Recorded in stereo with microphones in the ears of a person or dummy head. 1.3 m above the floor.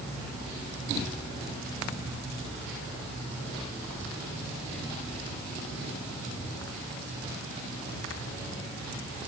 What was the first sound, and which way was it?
Only background noise.